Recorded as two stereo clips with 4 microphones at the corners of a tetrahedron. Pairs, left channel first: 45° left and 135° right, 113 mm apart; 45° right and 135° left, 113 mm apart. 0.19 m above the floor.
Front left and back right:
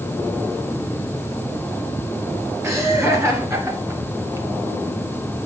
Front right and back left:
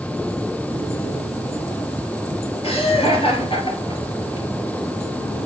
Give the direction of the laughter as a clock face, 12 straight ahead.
2 o'clock.